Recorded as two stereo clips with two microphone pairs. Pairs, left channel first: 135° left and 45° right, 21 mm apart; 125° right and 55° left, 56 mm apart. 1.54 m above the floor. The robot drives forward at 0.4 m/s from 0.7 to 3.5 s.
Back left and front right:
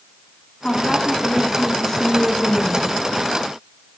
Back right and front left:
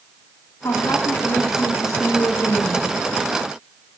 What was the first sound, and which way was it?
A woman speaking, 145° right.